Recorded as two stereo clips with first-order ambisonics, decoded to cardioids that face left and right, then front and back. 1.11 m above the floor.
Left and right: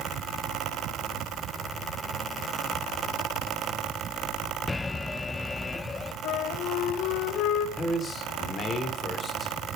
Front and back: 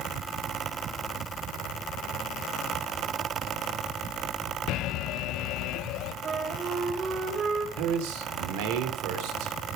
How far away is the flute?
About 1.8 m.